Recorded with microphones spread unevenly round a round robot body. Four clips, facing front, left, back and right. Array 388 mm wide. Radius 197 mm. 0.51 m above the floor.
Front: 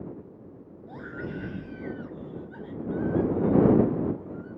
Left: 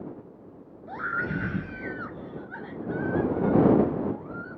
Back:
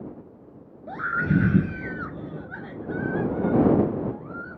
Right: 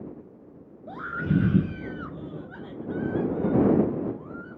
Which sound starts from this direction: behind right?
A scream, at 0.9 s.